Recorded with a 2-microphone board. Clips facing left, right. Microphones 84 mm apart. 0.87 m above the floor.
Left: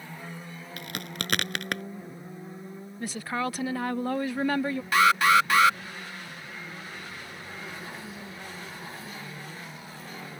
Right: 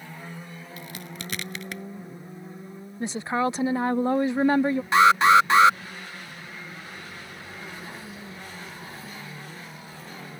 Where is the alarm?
25° right (ahead or behind).